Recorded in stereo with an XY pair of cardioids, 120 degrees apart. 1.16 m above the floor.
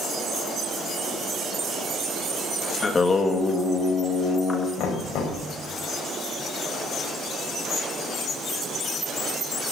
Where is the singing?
30° left, 2 m.